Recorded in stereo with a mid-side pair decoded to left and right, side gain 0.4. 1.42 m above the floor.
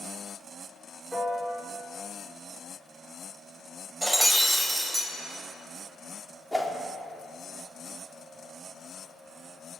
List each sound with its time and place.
1.1 s a piano: 5° left, 5 m
4.0 s breaking glass: 5° right, 4 m
6.5 s a whoosh: straight ahead, 3 m